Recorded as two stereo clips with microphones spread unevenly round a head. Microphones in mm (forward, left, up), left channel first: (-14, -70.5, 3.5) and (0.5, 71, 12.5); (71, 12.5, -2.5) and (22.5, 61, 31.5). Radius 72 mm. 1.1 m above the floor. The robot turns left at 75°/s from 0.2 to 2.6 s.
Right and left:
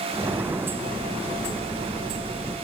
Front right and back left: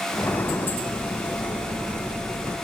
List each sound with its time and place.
Only background noise.